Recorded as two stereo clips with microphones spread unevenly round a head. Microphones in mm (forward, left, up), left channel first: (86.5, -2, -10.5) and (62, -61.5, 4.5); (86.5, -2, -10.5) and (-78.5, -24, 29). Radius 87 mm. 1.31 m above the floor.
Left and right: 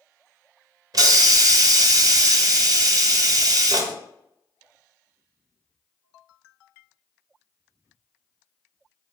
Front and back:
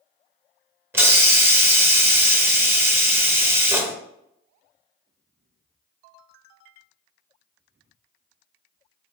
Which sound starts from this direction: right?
A hiss, at 0.9 s.